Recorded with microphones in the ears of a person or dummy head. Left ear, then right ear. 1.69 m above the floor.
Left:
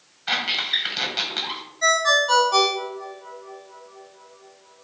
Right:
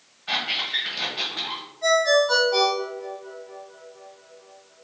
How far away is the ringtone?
About 1.2 m.